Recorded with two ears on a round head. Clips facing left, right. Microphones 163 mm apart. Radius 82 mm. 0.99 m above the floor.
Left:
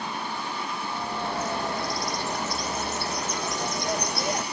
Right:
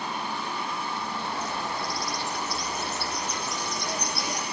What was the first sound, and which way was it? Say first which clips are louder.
A bird: left 2 dB; 40° left (ahead or behind).